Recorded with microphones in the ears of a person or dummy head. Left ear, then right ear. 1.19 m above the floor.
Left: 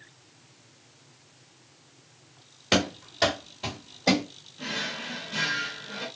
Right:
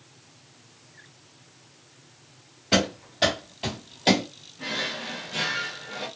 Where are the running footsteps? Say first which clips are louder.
Right 1 dB; 35° left (ahead or behind), 1.5 m; by 4.2 s 35° right (ahead or behind), 1.7 m.